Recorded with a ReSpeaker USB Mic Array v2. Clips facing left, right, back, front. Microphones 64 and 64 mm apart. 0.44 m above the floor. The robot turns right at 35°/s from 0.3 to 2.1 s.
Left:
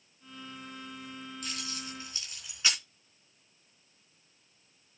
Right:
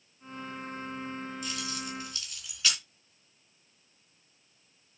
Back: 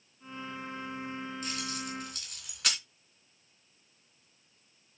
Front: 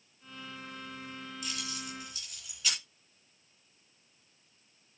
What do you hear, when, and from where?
1.4 s keys jangling: 130° left, 3.5 m; by 2.8 s 155° left, 3.5 m